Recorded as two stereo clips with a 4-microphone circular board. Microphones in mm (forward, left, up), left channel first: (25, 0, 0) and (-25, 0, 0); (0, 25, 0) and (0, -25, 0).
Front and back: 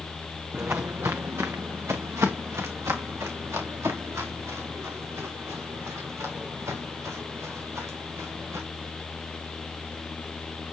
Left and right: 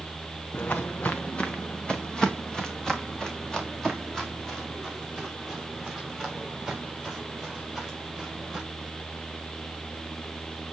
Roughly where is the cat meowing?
No cat meowing in this recording.